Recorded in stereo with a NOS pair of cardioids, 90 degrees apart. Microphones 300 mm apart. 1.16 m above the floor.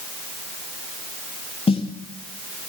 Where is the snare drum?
20° left, 2.5 m.